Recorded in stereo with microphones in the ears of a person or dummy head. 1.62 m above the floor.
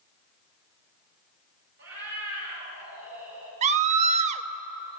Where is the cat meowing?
75° right (ahead or behind), 5.5 m.